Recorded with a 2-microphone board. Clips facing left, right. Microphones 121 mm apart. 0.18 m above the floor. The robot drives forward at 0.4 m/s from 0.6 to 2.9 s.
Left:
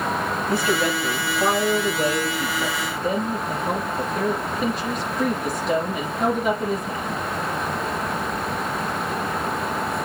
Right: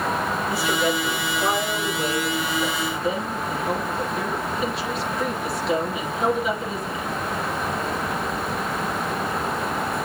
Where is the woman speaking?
50° left (ahead or behind), 4.5 m; by 7.2 s 45° left (ahead or behind), 5 m.